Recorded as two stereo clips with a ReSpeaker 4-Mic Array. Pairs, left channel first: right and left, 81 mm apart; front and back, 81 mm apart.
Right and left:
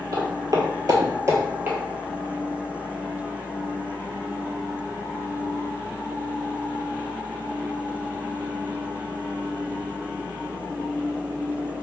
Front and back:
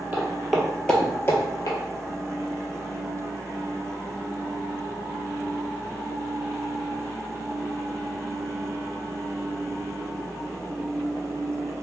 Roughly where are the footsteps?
Behind left.